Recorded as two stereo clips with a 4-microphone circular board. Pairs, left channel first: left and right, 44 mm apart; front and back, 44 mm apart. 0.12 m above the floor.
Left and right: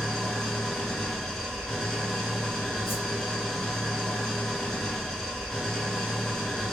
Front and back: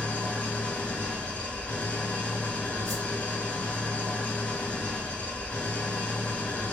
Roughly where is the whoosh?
Left.